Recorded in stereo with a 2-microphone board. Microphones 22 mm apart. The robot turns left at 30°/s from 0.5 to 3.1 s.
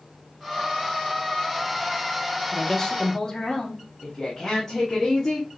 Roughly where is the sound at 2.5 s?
Centre.